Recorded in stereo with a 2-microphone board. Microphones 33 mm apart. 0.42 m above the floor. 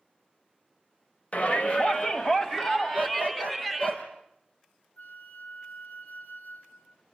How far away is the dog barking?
About 4 m.